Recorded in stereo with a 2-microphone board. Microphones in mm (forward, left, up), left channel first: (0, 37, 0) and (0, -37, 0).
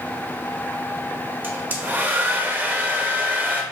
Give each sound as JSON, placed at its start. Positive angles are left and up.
{"t": 1.4, "sound": "a hair dryer", "side_deg": -25, "distance_m": 0.7}